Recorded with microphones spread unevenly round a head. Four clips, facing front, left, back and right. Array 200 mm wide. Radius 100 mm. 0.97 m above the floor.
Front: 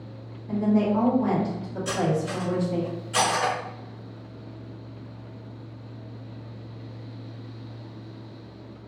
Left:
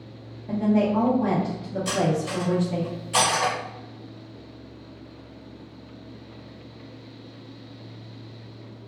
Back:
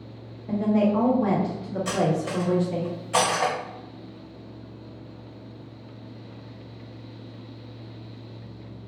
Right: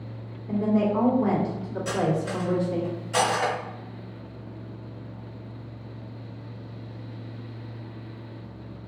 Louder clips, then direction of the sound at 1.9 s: Left 1 dB, back 1 dB; straight behind.